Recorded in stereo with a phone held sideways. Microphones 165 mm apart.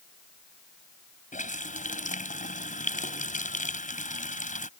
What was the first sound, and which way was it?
A running tap, 50° left (ahead or behind).